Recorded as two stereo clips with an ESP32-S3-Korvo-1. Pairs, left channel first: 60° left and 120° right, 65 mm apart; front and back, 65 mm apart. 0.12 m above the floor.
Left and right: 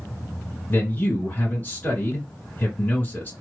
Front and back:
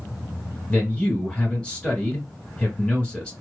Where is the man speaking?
60° left, 1.5 m.